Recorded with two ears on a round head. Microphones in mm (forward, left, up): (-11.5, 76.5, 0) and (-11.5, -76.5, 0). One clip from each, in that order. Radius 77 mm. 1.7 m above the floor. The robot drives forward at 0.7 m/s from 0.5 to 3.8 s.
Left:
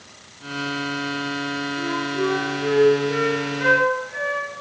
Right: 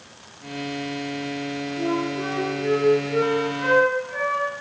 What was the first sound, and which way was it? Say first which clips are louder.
A flute: even; 75° left (ahead or behind).